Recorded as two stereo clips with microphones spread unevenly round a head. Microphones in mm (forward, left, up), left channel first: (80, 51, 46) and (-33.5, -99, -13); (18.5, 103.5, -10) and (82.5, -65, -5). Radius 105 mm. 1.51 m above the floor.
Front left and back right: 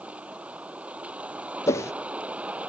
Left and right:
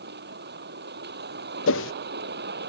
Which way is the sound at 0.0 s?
45° right.